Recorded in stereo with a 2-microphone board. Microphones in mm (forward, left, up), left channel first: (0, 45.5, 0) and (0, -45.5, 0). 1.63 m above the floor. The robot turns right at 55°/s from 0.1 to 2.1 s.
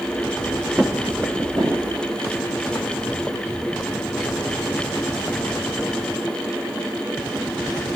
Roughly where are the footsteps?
Centre.